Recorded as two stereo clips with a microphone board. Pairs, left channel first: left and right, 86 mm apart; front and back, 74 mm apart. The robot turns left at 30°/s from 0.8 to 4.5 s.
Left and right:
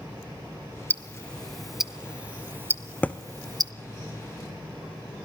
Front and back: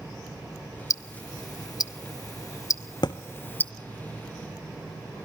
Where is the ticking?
20° left, 0.5 m; by 3.7 s 60° right, 0.5 m.